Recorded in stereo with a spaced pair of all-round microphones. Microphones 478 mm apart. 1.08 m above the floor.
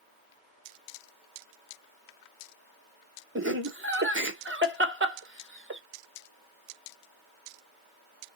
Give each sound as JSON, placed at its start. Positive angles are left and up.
{"t": 3.4, "sound": "laughter", "side_deg": -25, "distance_m": 0.9}